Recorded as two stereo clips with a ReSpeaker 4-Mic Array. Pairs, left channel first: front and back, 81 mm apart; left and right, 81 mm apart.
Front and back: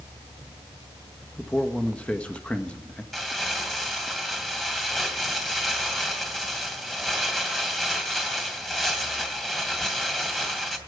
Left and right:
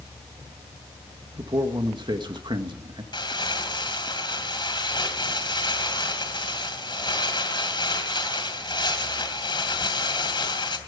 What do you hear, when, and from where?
1.4 s a man speaking: 75° right, 1.6 m
3.1 s crumpling: 85° left, 2.5 m